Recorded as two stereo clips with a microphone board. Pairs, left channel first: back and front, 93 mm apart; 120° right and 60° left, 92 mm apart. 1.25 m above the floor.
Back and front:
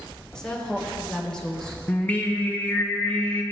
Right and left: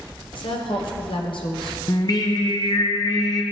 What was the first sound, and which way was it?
A woman speaking, 100° right.